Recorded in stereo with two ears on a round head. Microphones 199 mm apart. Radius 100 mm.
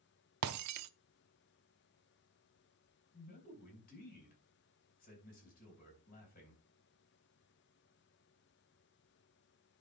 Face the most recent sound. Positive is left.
turn(degrees=40)  # may be behind; listen again after turning